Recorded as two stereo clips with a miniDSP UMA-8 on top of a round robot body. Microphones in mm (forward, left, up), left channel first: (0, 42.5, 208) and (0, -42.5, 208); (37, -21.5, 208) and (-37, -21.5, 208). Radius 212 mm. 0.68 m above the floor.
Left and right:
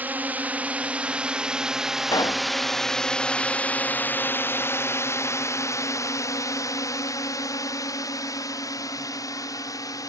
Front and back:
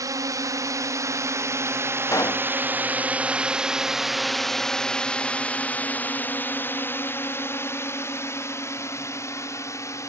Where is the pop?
45° left.